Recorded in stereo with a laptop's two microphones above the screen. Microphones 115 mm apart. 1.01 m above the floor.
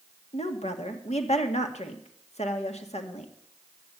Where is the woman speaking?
70° left (ahead or behind), 1.9 m.